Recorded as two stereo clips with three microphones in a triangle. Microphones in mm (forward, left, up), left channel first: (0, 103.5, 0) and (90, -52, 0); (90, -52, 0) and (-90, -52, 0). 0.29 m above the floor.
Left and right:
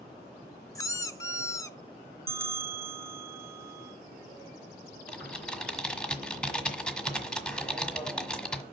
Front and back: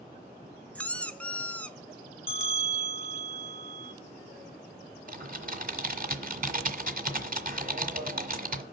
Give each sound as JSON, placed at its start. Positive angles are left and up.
{"t": 0.8, "sound": "a squeak", "azimuth_deg": 70, "distance_m": 0.7}
{"t": 2.3, "sound": "a bell", "azimuth_deg": -135, "distance_m": 0.6}
{"t": 5.1, "sound": "typing on a keyboard", "azimuth_deg": -155, "distance_m": 1.4}